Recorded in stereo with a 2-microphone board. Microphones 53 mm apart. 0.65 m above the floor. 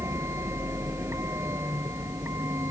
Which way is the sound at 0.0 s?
60° right (ahead or behind).